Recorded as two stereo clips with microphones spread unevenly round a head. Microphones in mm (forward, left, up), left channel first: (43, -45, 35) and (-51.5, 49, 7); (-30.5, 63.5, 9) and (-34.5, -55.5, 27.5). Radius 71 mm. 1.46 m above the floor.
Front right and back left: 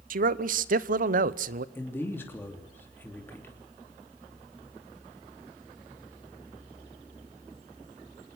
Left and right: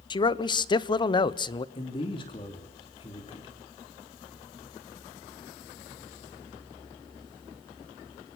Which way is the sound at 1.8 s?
30° left.